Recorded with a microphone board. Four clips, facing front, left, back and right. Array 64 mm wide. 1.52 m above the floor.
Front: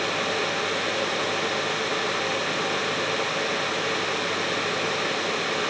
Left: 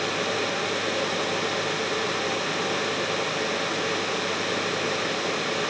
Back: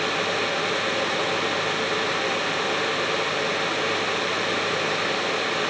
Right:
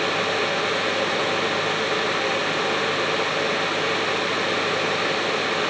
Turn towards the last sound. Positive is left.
No sound to turn to.